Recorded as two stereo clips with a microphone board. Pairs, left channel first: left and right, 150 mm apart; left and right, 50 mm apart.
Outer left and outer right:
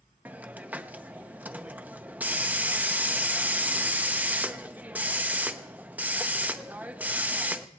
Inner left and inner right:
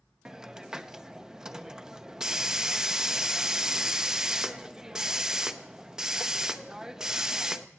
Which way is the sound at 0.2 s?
10° right (ahead or behind).